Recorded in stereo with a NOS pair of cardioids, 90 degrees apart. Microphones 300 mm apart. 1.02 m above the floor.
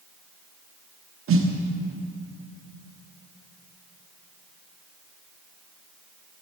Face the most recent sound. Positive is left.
turn(degrees=-45)